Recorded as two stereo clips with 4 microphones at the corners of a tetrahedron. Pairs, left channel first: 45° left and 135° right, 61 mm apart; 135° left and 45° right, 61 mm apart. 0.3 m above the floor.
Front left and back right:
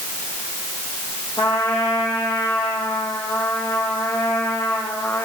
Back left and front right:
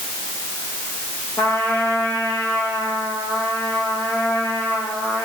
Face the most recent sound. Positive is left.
turn(degrees=70)